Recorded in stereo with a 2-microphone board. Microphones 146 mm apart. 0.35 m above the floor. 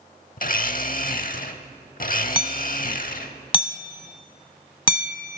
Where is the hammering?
30° left (ahead or behind), 0.7 m.